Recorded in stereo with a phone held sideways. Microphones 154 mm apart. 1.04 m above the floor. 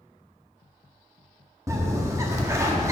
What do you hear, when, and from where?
1.7 s a bird: 20° right (ahead or behind), 1.1 m